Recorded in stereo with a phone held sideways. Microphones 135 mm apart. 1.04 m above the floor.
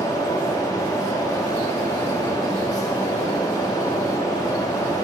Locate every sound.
0.0 s a fan: 25° left (ahead or behind), 0.9 m